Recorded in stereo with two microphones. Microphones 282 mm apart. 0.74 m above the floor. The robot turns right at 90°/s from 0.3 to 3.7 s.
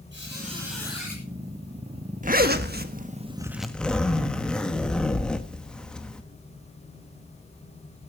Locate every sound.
0.1 s a squeak: 40° right, 9.5 m; by 1.2 s 40° left, 9.5 m
2.2 s a zipper: 125° right, 1.3 m; by 6.2 s 5° left, 1.3 m